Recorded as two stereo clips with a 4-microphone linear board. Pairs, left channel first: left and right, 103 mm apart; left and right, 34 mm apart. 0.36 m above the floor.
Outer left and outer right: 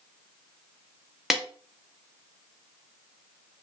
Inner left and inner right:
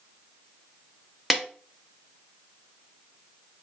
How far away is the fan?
No fan in this recording.